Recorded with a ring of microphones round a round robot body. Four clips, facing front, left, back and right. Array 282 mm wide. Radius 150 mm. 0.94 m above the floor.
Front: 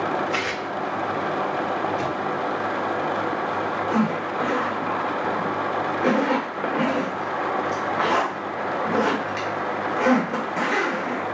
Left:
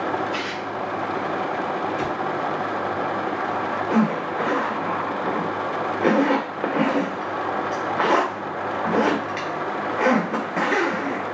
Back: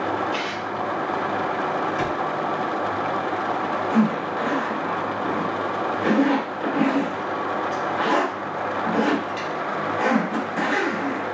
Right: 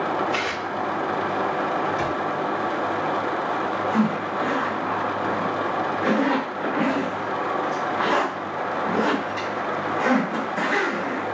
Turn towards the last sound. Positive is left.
turn(degrees=75)